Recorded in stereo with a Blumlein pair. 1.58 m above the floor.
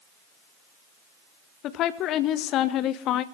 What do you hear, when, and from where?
1.6 s a woman speaking: 35° left, 0.9 m